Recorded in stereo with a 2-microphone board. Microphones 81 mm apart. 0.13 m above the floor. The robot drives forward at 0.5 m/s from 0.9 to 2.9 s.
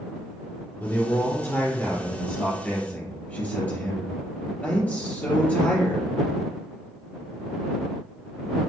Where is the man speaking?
20° left (ahead or behind), 1.8 m; by 6.0 s 15° left (ahead or behind), 2.5 m.